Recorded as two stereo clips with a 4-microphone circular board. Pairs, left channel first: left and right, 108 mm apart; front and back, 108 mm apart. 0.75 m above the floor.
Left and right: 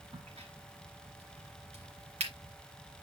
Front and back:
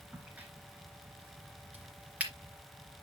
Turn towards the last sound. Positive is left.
turn(degrees=-105)